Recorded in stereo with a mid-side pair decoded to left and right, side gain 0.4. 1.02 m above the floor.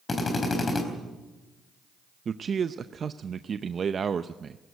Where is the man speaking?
50° right, 0.6 m.